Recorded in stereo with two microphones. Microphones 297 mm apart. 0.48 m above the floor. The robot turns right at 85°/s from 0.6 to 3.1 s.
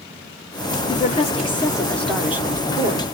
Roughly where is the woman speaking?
Centre.